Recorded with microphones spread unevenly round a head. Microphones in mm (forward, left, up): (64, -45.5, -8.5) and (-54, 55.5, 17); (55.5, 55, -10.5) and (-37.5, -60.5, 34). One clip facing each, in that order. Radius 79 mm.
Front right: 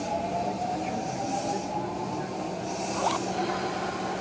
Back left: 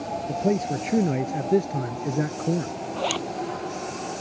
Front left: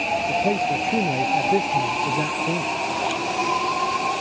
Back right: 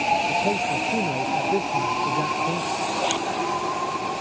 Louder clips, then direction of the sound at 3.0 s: Back left 1 dB, even; 165° right.